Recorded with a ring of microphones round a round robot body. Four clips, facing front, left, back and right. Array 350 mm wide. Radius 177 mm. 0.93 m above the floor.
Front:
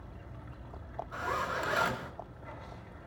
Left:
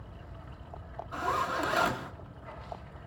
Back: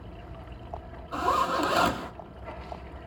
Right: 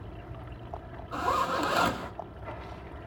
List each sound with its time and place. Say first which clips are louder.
0.0 s running water: right 5 dB, back 6 dB; 125° right, 1.2 m
1.1 s a zipper: right 3 dB, back 9 dB; 150° right, 1.4 m